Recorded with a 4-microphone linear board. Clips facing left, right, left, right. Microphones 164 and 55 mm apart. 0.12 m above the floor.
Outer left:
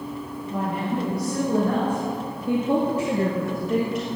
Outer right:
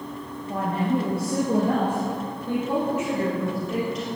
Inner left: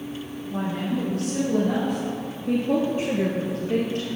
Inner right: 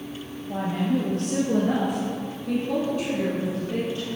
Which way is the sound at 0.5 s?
40° right (ahead or behind).